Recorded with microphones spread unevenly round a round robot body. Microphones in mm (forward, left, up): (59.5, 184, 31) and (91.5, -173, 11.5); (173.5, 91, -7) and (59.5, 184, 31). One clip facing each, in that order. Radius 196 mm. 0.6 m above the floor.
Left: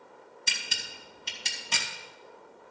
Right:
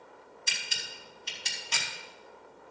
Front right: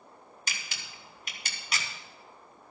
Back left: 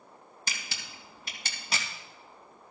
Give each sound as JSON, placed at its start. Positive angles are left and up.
{"t": 0.5, "sound": "a camera shutter", "azimuth_deg": 85, "distance_m": 3.0}